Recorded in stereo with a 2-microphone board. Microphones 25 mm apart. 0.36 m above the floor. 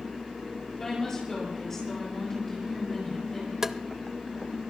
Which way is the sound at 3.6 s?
20° right (ahead or behind).